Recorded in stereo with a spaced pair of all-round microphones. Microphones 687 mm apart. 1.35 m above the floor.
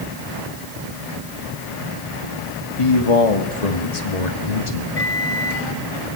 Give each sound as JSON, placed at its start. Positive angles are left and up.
{"t": 2.8, "sound": "a man speaking", "side_deg": 45, "distance_m": 2.0}
{"t": 5.0, "sound": "a microwave", "side_deg": 55, "distance_m": 2.5}